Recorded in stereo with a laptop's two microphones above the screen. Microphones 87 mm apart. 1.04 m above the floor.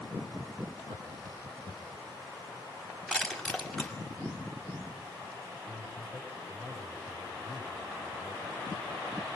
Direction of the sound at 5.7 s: Centre (ahead or behind).